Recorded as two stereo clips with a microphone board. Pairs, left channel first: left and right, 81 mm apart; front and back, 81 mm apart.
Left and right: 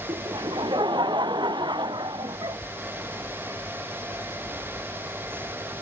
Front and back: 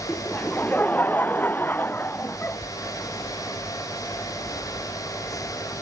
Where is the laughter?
70° right; by 2.6 s 65° right.